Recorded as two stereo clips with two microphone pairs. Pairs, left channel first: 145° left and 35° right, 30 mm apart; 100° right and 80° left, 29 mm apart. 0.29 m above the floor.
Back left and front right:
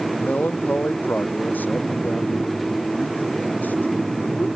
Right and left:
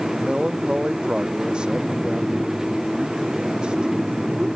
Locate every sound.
0.1 s a man speaking: 140° left